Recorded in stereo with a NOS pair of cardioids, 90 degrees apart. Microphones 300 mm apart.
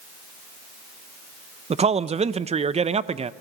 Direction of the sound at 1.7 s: 20° right.